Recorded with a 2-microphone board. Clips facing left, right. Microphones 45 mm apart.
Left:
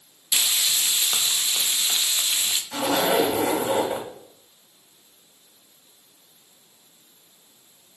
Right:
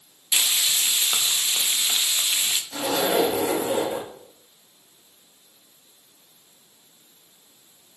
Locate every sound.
0.3 s frying: 15° right (ahead or behind), 0.7 m
2.7 s a zipper: 60° left (ahead or behind), 2 m